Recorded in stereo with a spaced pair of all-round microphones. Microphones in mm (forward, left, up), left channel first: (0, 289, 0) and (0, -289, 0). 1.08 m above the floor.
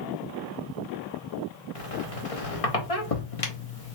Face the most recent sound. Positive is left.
turn(degrees=70)  # may be behind; listen again after turning